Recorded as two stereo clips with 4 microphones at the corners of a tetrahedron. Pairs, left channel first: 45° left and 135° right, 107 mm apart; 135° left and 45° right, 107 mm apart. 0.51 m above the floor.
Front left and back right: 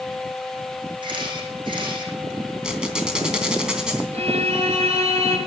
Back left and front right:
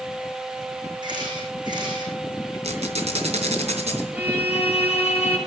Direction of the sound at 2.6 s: 55° right.